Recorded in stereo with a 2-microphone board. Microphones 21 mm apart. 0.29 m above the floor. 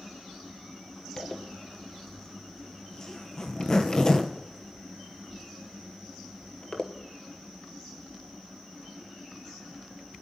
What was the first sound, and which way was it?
A zipper, 30° left (ahead or behind).